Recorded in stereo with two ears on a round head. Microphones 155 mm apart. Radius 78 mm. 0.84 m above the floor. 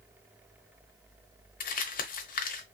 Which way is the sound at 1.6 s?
50° left (ahead or behind).